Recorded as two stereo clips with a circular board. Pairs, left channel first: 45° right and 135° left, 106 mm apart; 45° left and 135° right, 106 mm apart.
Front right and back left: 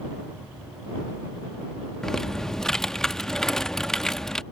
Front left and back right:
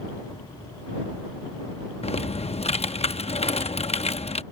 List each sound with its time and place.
2.0 s typing on a keyboard: 40° left